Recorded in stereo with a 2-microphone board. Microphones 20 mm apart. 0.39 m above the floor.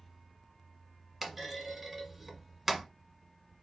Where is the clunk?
5° right (ahead or behind), 1.0 m.